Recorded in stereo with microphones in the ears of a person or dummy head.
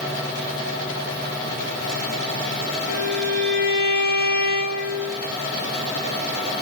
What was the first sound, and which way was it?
A violin, 50° right (ahead or behind).